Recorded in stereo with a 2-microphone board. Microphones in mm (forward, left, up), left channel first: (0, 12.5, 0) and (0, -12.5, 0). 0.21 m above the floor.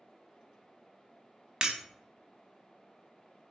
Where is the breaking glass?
35° right (ahead or behind), 0.6 m.